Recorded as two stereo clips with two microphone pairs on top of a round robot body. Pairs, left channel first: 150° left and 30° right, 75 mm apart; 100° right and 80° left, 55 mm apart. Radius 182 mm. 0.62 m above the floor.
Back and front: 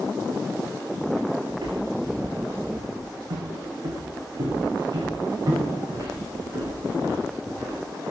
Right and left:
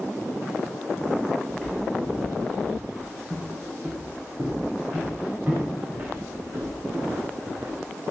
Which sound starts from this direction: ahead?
Footsteps, at 1.5 s.